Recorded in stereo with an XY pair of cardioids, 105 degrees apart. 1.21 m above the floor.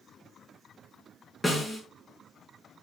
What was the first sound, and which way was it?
A snare drum, 15° left.